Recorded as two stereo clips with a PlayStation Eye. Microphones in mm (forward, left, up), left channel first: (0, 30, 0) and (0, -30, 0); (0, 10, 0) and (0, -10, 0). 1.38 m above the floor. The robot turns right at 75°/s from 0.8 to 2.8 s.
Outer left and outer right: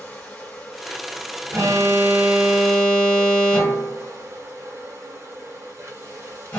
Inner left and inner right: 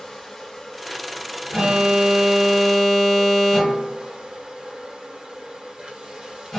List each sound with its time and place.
0.0 s an insect: 160° left, 1.1 m; by 6.6 s 50° right, 1.1 m
1.5 s an alarm: 70° right, 1.4 m; by 6.6 s 25° left, 1.4 m